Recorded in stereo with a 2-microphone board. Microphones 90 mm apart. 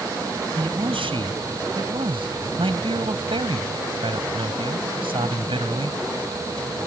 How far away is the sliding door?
No sliding door in this recording.